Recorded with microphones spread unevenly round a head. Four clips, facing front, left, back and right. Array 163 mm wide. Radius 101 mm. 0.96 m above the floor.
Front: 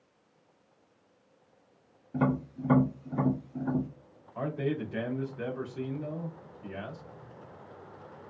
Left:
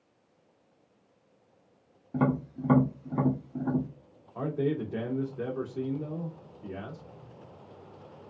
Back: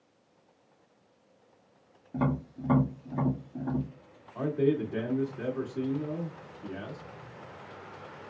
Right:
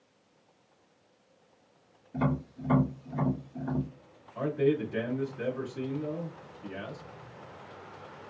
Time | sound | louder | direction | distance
2.1 | tapping | left 3 dB, front 2 dB | 120° left | 1.7 m
4.3 | a man speaking | right 3 dB, back 5 dB | 140° left | 1.8 m